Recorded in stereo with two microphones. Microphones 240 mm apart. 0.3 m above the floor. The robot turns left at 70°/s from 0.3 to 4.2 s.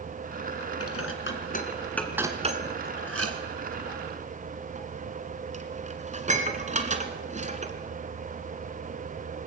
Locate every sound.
0.8 s dishes clattering: 75° left (ahead or behind), 2 m; by 7.7 s 30° right (ahead or behind), 2 m